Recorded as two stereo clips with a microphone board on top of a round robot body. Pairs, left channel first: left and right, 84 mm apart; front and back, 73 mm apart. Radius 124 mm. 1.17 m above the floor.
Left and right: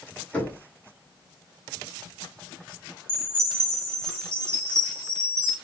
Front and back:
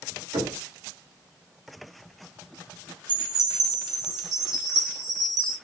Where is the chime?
155° right, 3 m.